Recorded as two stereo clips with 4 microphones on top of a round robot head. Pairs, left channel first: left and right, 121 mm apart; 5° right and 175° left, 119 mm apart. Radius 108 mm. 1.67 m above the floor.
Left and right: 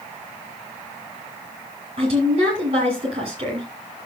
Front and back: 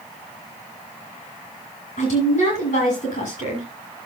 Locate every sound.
2.0 s a woman speaking: 35° right, 7 m